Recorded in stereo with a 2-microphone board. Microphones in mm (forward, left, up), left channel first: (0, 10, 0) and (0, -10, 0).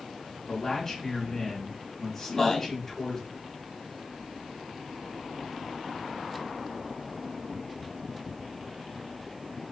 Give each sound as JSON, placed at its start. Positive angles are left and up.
{"t": 0.5, "sound": "a man speaking", "side_deg": 20, "distance_m": 1.3}
{"t": 2.3, "sound": "a man speaking", "side_deg": 25, "distance_m": 1.2}